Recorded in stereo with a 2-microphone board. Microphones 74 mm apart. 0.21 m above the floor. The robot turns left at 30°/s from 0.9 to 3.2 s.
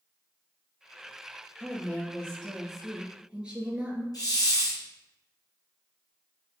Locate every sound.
1.6 s a woman speaking: 30° left, 3.5 m; by 4.0 s 15° right, 3.5 m
4.1 s a hiss: 55° left (ahead or behind), 3 m